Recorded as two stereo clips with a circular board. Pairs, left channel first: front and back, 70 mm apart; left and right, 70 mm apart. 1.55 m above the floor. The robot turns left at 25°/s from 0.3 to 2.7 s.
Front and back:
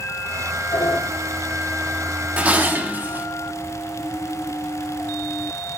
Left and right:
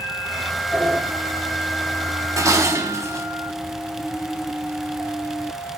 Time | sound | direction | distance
0.7 | a sliding door | 10° right | 4 m
2.4 | dishes clattering | 115° right | 0.9 m